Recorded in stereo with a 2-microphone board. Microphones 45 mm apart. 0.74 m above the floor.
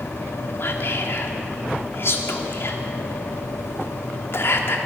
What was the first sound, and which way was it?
Whispering, 55° left (ahead or behind).